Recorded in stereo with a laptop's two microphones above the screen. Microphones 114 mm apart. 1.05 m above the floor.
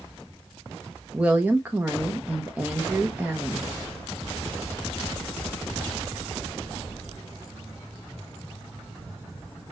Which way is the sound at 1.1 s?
15° right (ahead or behind).